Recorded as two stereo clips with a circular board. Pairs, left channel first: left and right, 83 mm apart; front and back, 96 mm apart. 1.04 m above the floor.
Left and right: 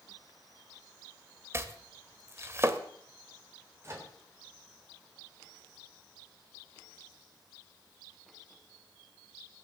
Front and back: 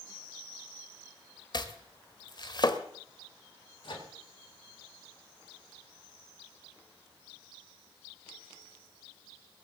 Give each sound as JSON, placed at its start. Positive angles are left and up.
{"t": 1.5, "sound": "chopping", "azimuth_deg": -35, "distance_m": 1.3}
{"t": 3.8, "sound": "a microwave", "azimuth_deg": -35, "distance_m": 4.0}